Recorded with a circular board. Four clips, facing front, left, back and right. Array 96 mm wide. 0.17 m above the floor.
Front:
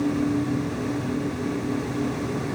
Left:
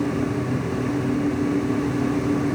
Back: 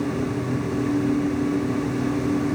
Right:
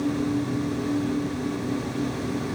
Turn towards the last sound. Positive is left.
No sound to turn to.